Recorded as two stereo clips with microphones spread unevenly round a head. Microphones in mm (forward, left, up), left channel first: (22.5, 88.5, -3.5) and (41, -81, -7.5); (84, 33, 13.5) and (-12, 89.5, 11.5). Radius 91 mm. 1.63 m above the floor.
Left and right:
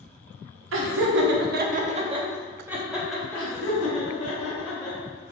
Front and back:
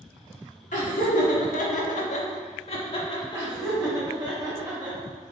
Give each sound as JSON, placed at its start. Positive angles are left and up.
{"t": 0.7, "sound": "laughter", "azimuth_deg": -85, "distance_m": 0.8}
{"t": 3.3, "sound": "laughter", "azimuth_deg": 90, "distance_m": 1.8}